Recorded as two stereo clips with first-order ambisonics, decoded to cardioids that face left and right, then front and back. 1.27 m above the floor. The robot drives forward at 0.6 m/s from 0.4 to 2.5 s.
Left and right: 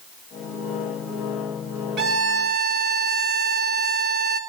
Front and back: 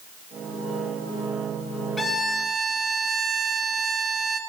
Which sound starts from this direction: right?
A violin, at 2.0 s.